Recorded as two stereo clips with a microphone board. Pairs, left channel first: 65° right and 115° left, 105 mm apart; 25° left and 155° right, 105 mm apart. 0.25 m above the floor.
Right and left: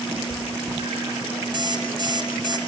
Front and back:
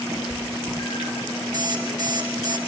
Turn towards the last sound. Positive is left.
turn(degrees=150)